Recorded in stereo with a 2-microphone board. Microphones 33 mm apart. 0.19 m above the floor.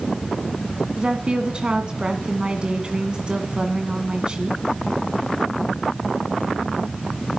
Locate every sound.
1.0 s a woman speaking: 30° right (ahead or behind), 1.6 m